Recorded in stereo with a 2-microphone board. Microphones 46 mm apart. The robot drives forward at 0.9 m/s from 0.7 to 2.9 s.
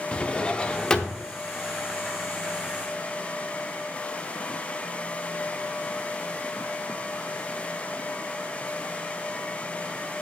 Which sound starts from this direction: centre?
A drawer, at 0.1 s.